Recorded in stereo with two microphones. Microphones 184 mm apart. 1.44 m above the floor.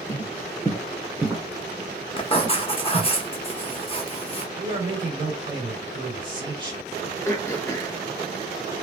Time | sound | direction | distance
0.1 | footsteps | 25° left (ahead or behind) | 1.5 m
2.2 | writing | 30° left (ahead or behind) | 1.1 m
4.6 | a man speaking | 30° right (ahead or behind) | 3.5 m
7.2 | throat clearing | 15° left (ahead or behind) | 0.8 m